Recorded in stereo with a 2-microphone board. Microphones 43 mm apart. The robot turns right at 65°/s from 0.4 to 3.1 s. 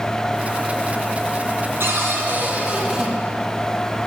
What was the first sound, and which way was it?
A cupboard door, 85° right.